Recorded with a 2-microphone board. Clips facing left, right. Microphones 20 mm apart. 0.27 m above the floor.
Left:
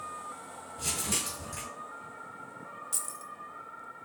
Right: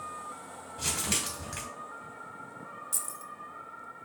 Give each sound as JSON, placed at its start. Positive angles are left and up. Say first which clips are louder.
{"t": 0.8, "sound": "crumpling", "louder": "right 2 dB", "side_deg": -45, "distance_m": 1.9}
{"t": 2.9, "sound": "keys jangling", "louder": "even", "side_deg": 10, "distance_m": 0.6}